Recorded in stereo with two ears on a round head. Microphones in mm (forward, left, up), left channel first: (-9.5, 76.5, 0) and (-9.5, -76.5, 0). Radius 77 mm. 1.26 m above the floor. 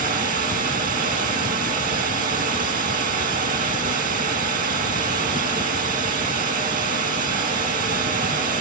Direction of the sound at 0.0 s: 55° right (ahead or behind).